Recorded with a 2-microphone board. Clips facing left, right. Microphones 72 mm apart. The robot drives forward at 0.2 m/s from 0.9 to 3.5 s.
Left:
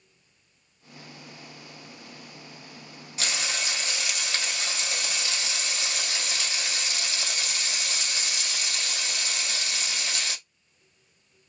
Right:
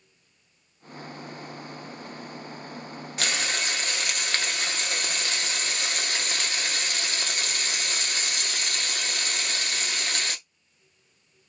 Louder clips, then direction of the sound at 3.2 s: Right 3 dB; 55° right (ahead or behind).